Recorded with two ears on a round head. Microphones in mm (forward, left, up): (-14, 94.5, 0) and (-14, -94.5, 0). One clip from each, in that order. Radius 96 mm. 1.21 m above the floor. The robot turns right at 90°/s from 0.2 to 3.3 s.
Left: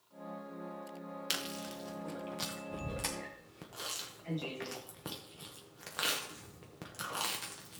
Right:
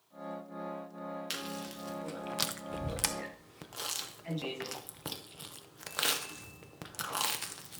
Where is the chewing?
20° left (ahead or behind), 0.8 m; by 7.8 s 20° right (ahead or behind), 0.8 m.